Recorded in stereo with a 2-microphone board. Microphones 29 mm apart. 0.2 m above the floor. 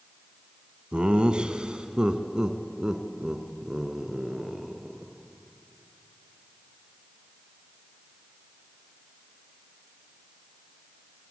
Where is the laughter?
40° right (ahead or behind), 1.8 m; by 5.1 s 20° right (ahead or behind), 3.5 m.